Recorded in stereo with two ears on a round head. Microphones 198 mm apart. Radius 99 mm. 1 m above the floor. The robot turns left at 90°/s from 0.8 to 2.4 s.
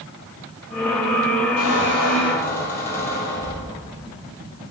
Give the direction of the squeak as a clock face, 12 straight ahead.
9 o'clock.